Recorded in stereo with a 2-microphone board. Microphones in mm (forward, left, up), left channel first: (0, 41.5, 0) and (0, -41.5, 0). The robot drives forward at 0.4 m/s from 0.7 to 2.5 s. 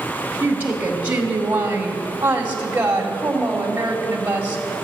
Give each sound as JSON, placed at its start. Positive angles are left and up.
{"t": 0.4, "sound": "a woman speaking", "side_deg": -20, "distance_m": 1.9}